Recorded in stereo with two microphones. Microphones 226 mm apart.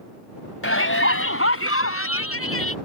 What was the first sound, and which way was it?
A shout, 65° left (ahead or behind).